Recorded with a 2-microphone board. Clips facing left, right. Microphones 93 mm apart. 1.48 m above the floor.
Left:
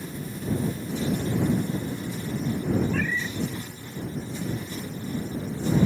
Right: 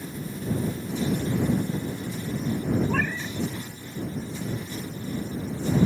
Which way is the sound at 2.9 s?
55° right (ahead or behind).